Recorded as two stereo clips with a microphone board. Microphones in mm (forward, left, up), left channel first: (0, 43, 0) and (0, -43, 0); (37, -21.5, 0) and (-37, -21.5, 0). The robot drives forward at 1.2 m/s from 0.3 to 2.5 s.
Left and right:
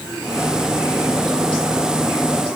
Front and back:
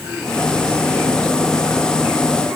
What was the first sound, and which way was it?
Only background noise.